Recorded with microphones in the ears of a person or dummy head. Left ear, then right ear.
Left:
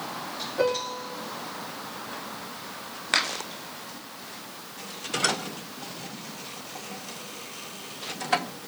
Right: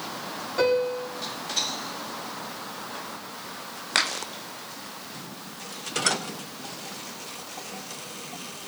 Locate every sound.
0.6 s a piano: 70° right (ahead or behind), 5 m